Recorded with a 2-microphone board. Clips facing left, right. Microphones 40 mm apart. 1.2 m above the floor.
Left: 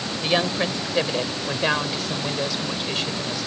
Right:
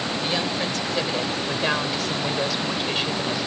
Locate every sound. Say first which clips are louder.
0.2 s a woman speaking: left 6 dB; 30° left (ahead or behind); by 3.5 s 15° right (ahead or behind)